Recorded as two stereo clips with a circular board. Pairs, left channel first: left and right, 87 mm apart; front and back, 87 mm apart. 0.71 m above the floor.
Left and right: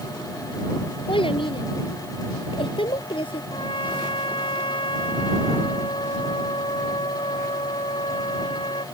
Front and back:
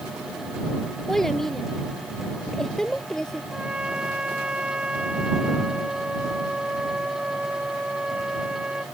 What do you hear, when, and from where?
1.1 s a child speaking: 85° left
3.5 s a trumpet: 100° left